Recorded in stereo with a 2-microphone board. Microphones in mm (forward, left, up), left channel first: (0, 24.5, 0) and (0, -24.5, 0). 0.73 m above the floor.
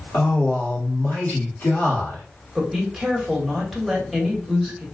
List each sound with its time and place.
0.1 s a man speaking: 55° left (ahead or behind), 1.8 m
2.5 s a woman speaking: centre (ahead or behind), 1.5 m